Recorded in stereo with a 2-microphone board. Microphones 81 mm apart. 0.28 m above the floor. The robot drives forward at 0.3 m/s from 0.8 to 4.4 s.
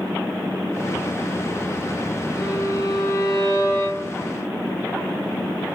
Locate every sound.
2.4 s a violin: 45° left (ahead or behind), 0.8 m; by 4.3 s 25° left (ahead or behind), 1.3 m